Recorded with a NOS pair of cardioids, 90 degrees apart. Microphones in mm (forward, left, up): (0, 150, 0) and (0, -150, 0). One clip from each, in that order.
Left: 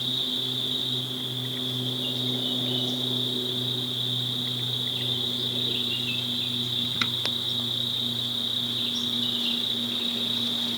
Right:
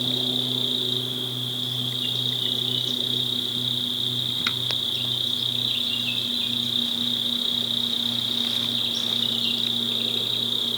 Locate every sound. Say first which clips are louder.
0.0 s an insect: right 3 dB; 35° right, 0.8 m